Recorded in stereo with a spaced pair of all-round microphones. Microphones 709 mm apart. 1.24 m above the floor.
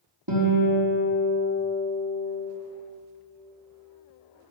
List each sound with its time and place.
0.3 s a guitar: 30° right (ahead or behind), 3 m